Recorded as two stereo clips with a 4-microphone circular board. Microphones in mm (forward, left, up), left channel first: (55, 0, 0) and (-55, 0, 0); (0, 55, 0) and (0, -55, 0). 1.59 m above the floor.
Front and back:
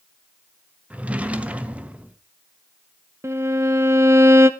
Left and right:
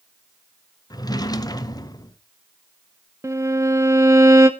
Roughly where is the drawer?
Left.